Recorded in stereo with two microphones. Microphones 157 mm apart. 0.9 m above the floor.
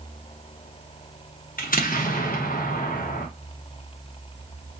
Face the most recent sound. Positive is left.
turn(degrees=65)  # may be behind; listen again after turning